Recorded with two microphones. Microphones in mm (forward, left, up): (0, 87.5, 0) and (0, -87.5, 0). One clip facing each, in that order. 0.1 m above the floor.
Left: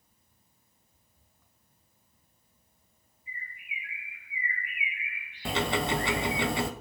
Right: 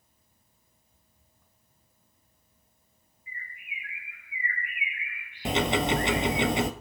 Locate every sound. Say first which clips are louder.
3.3 s a bird: even; 70° right (ahead or behind), 5 m
5.5 s ticking: right 3 dB; 20° right (ahead or behind), 0.6 m